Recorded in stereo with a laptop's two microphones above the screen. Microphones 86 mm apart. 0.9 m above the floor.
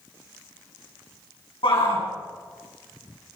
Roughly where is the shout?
Left.